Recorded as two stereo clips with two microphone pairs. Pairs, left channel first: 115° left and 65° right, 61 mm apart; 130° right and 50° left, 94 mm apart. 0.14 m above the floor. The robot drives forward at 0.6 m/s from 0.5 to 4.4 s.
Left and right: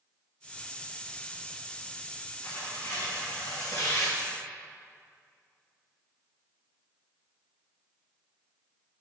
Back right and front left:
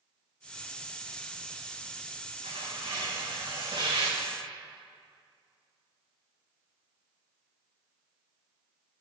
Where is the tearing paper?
60° left, 1.6 m; by 4.2 s 105° left, 1.4 m.